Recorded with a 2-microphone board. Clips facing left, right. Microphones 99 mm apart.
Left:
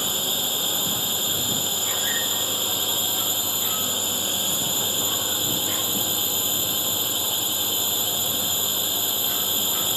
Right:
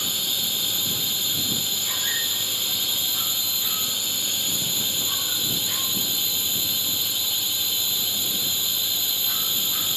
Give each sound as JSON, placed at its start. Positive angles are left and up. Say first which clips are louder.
{"t": 0.0, "sound": "a drone", "louder": "left 5 dB", "side_deg": 40}